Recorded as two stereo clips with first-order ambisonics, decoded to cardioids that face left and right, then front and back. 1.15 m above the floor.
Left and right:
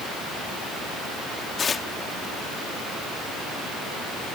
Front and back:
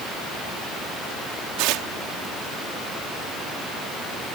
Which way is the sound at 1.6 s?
155° left.